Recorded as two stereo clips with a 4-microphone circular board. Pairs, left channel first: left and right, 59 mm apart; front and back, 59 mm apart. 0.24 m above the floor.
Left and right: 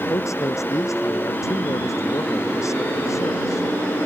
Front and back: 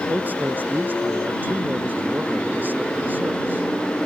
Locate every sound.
0.1 s a man speaking: 120° left